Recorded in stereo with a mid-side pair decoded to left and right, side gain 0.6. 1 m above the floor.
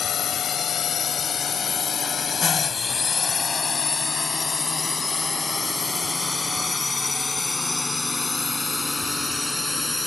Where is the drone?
45° left; by 10.1 s 15° left.